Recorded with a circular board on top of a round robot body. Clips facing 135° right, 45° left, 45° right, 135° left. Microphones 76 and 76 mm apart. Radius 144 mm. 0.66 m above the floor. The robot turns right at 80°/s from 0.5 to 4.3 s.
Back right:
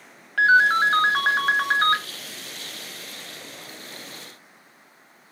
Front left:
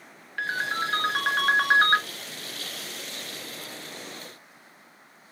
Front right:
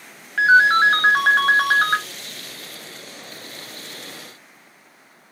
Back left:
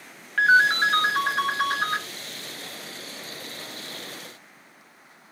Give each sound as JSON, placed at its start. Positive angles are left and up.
{"t": 0.4, "sound": "a ringtone", "azimuth_deg": -130, "distance_m": 0.8}